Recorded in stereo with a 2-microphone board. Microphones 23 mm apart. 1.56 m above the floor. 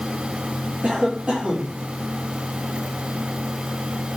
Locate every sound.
0.8 s a cough: 70° right (ahead or behind), 5 m